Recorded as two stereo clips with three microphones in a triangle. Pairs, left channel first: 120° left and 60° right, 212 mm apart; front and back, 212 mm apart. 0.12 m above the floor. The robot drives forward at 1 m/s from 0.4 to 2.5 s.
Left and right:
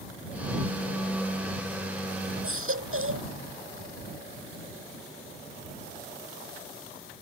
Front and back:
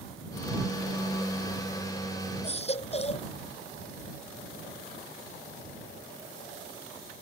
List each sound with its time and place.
2.4 s a baby crying: 60° right